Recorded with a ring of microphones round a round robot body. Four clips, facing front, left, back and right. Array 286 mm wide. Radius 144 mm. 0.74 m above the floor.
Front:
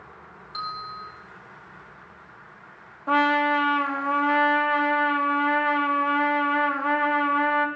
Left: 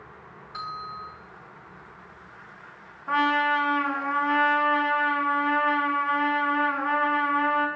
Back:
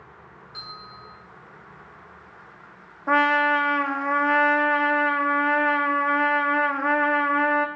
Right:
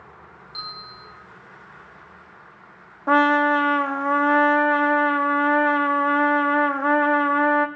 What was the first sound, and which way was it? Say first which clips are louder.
A bell: left 6 dB, front 10 dB; 45° left.